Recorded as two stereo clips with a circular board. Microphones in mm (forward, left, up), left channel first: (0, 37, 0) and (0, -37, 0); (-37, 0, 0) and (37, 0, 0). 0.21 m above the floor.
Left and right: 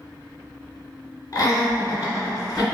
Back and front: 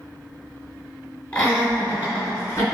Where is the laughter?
115° left, 2.0 m; by 2.8 s 130° left, 2.5 m.